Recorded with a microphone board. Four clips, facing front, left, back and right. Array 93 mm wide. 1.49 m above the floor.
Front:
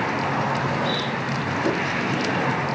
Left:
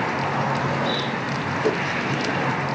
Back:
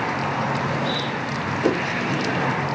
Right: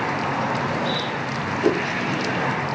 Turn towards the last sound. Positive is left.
turn(degrees=-145)